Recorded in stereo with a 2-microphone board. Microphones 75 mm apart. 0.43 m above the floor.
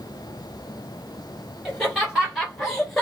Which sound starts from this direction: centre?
Laughter, at 1.6 s.